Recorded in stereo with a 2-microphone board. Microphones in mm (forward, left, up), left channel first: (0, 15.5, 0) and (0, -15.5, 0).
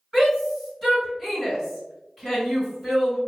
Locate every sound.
0.1 s a shout: 10° right (ahead or behind), 2.0 m